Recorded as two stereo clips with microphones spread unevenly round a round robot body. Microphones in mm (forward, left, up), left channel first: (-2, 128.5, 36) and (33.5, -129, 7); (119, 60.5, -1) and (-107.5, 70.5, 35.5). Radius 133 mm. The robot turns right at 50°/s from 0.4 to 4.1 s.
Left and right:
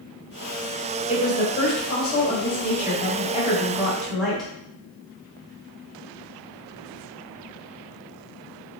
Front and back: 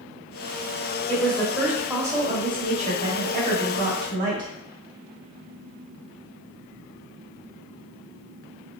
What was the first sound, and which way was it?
A woman speaking, 45° left.